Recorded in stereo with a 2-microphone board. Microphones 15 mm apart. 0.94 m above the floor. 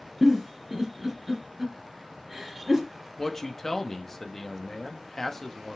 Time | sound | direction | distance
0.2 | a giggle | 20° right (ahead or behind) | 3 m
3.2 | a man speaking | 25° left (ahead or behind) | 1.5 m